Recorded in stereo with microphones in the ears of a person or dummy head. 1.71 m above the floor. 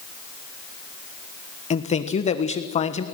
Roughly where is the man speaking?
Left.